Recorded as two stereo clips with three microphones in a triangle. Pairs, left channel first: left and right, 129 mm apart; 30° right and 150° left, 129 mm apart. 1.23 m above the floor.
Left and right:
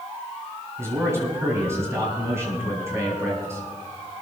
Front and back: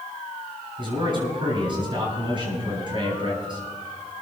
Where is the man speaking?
160° right, 9 m.